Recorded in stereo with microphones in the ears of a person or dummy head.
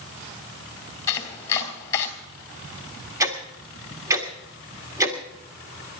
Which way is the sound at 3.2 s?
10° right (ahead or behind).